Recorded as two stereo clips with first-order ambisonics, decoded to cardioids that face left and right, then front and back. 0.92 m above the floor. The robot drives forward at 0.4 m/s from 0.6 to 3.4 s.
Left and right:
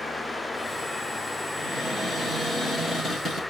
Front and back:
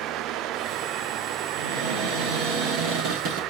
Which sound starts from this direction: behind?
A cupboard door, at 1.6 s.